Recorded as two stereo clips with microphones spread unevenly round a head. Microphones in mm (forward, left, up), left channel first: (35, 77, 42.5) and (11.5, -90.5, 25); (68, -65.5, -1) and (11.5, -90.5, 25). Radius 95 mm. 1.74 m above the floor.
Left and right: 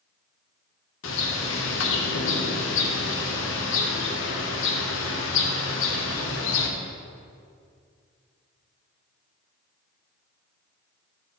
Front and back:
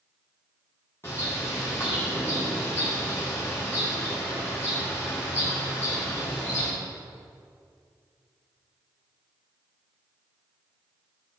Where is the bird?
100° left, 0.9 m.